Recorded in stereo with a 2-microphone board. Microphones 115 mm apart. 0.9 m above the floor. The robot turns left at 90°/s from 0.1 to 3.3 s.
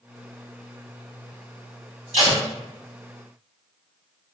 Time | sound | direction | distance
2.1 | tape being pulled | 80° right | 0.8 m